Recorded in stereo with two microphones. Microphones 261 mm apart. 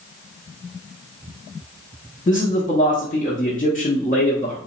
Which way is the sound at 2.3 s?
30° left (ahead or behind).